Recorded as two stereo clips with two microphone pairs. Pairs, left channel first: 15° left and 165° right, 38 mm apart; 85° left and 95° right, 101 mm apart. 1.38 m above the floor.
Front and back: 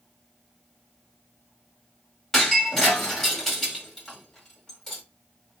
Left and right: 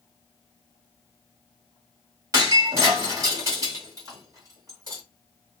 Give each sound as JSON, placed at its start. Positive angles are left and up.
{"t": 2.3, "sound": "breaking glass", "azimuth_deg": -60, "distance_m": 1.5}